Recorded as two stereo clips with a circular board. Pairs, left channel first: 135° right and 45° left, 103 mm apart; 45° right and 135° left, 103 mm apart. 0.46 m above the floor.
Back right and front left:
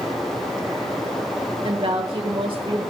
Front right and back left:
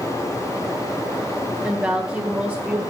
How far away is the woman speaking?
About 1.6 m.